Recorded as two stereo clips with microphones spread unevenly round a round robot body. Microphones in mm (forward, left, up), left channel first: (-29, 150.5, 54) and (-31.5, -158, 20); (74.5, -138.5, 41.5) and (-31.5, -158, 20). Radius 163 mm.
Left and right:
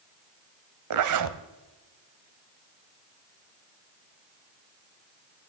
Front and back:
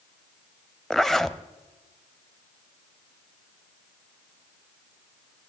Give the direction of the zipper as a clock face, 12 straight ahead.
3 o'clock.